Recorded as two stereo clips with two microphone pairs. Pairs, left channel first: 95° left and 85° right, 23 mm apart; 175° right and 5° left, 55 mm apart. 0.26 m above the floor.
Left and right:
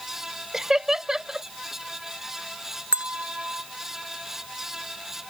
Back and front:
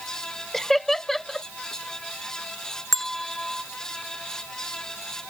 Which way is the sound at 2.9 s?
90° right.